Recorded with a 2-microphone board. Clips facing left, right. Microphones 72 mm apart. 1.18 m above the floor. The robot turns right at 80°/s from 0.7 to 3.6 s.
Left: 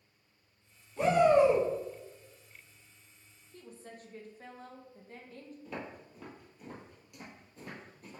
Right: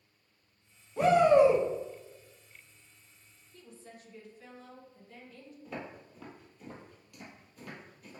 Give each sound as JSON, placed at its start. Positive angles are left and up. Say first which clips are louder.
{"t": 1.0, "sound": "a shout", "louder": "right 2 dB", "azimuth_deg": -110, "distance_m": 1.0}
{"t": 3.5, "sound": "a woman speaking", "louder": "left 2 dB", "side_deg": 50, "distance_m": 0.8}
{"t": 5.7, "sound": "footsteps", "louder": "right 1 dB", "side_deg": 0, "distance_m": 1.8}